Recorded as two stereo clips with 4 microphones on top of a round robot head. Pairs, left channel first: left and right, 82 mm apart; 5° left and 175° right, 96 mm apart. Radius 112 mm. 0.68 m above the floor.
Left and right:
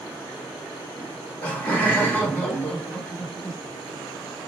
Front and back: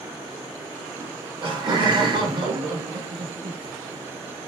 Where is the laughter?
160° left, 1.6 m.